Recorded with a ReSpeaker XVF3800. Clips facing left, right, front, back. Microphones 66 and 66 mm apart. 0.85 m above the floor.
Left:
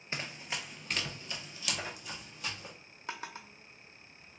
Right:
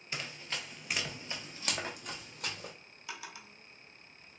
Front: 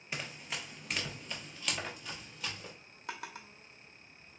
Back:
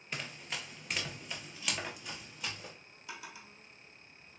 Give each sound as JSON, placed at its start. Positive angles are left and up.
{"t": 0.1, "sound": "running footsteps", "azimuth_deg": 80, "distance_m": 0.9}
{"t": 3.1, "sound": "a drawer", "azimuth_deg": 35, "distance_m": 0.8}